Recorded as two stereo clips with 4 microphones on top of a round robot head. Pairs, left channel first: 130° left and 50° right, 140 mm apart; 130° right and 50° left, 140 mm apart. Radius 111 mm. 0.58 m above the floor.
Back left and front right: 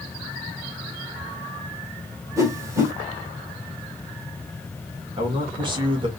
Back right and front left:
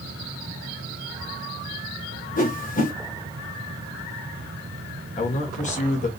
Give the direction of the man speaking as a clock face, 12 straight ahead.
3 o'clock.